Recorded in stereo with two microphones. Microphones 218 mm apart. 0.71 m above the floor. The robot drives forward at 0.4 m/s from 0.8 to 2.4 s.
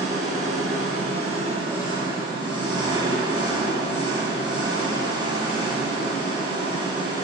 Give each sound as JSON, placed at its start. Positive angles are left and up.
{"t": 0.0, "sound": "an engine running", "side_deg": -30, "distance_m": 1.4}